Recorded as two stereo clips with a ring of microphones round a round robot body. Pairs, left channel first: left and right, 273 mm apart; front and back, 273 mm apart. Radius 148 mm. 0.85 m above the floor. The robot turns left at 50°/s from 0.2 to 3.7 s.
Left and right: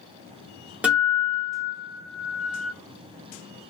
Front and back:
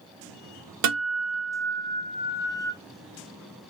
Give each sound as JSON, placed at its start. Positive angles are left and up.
{"t": 0.8, "sound": "a guitar", "azimuth_deg": -175, "distance_m": 0.8}